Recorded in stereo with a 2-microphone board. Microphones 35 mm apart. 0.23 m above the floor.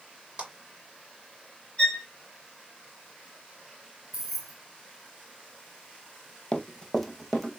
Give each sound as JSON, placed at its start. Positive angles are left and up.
{"t": 0.4, "sound": "a clap", "side_deg": -30, "distance_m": 4.0}
{"t": 1.8, "sound": "a violin", "side_deg": 35, "distance_m": 2.0}
{"t": 4.1, "sound": "keys jangling", "side_deg": -5, "distance_m": 1.8}
{"t": 6.5, "sound": "running footsteps", "side_deg": 25, "distance_m": 0.6}